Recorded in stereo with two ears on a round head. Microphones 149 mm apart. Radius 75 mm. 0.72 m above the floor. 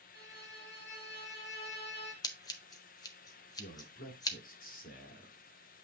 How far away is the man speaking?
About 1.4 m.